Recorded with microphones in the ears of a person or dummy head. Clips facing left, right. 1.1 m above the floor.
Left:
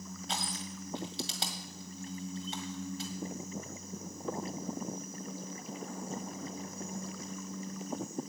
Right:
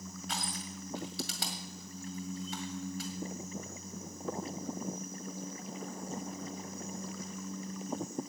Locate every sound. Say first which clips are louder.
0.3 s crushing: left 2 dB; 25° left (ahead or behind), 1.9 m